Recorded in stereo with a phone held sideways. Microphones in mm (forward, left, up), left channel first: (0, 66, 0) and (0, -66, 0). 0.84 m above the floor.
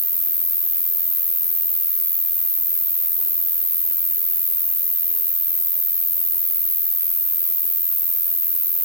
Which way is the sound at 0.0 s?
80° left.